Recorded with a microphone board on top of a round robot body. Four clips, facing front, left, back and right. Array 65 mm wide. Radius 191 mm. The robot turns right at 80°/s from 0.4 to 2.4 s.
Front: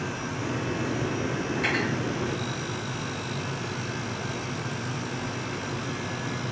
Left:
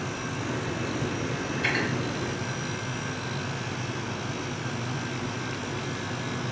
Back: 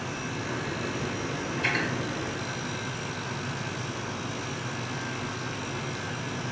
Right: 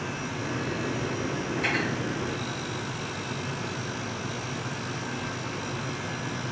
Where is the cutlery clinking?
30° right, 2.0 m; by 1.9 s straight ahead, 2.0 m.